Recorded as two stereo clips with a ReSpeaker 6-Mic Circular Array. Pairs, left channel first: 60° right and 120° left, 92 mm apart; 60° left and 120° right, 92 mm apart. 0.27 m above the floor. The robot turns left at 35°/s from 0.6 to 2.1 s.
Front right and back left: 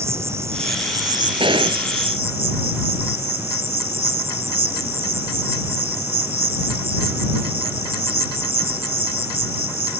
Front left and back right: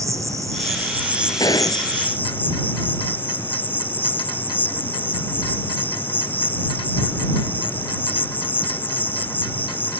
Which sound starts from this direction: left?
A gunshot, at 1.4 s.